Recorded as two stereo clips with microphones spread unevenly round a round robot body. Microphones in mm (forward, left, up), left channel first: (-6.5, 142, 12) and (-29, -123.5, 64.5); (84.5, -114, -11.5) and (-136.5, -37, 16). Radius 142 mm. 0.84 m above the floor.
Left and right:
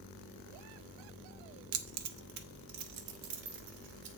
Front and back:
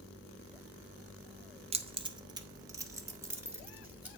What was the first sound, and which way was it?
Keys jangling, 135° right.